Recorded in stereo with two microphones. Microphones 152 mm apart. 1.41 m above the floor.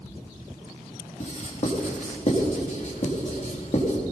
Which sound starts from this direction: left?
Writing, at 1.2 s.